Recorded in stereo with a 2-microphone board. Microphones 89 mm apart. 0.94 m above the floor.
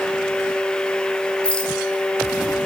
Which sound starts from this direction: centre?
A rattle, at 1.4 s.